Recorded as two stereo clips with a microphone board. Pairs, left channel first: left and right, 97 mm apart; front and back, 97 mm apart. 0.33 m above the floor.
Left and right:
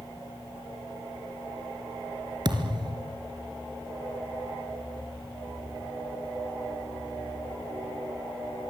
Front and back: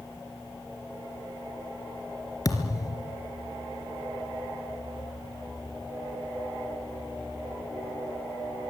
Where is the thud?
50° right, 3 m.